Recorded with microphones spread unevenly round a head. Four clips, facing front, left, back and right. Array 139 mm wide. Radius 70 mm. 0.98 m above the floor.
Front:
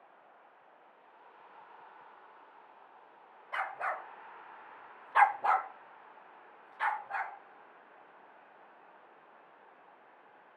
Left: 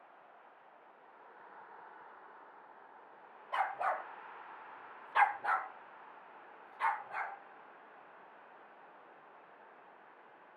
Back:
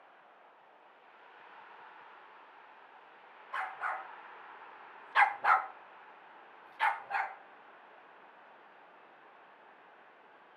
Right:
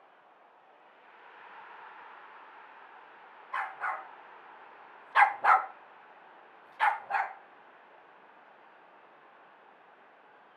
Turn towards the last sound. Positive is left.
turn(degrees=-120)